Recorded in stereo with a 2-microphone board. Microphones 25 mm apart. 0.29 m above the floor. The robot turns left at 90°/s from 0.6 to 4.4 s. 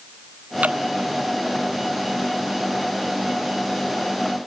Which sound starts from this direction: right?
Dripping, at 0.6 s.